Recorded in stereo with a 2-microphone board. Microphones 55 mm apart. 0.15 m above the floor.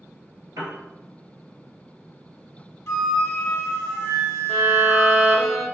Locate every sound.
0.6 s a piano: 70° right (ahead or behind), 0.9 m
2.9 s a flute: 45° left (ahead or behind), 0.7 m
4.5 s a violin: 10° right (ahead or behind), 0.8 m